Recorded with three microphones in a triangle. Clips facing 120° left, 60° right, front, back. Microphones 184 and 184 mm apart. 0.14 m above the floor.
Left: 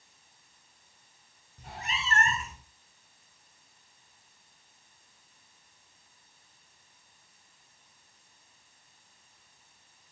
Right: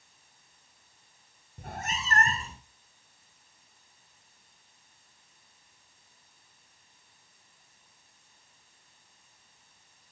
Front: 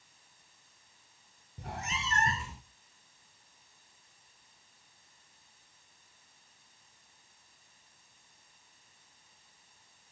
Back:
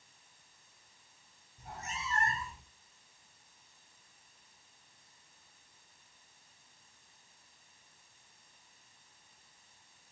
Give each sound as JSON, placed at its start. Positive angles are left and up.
{"t": 1.6, "sound": "a cat meowing", "azimuth_deg": -20, "distance_m": 1.4}